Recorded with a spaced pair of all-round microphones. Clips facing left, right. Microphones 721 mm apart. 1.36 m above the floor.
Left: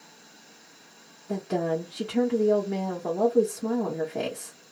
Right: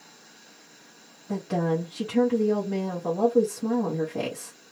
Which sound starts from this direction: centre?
A woman speaking, at 1.3 s.